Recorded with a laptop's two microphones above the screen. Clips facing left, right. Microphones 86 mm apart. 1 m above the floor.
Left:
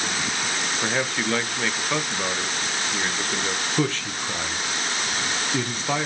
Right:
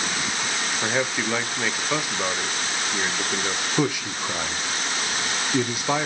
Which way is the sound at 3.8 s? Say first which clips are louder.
Right 2 dB; 10° right (ahead or behind).